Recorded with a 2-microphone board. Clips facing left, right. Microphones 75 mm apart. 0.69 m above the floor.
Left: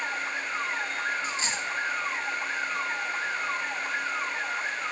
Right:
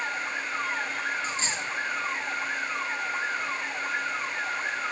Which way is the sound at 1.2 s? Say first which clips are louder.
Even; 30° right (ahead or behind).